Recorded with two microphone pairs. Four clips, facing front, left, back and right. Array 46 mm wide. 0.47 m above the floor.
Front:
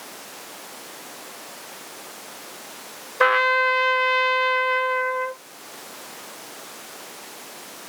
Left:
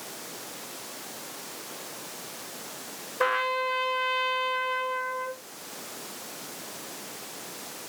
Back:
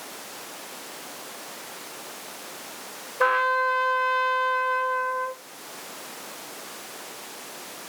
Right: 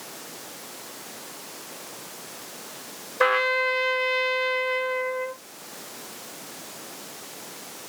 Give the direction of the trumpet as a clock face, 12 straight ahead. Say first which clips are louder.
Right 5 dB, front 4 dB; 1 o'clock.